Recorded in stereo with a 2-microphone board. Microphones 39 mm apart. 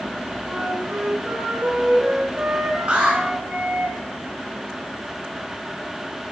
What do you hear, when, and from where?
0.5 s a flute: 45° right (ahead or behind), 4 m
2.9 s an alarm: 30° right (ahead or behind), 4.5 m